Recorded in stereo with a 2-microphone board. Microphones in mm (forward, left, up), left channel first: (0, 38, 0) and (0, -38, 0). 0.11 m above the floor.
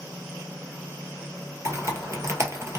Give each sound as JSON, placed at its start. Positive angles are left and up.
{"t": 1.6, "sound": "typing on a keyboard", "side_deg": -40, "distance_m": 0.8}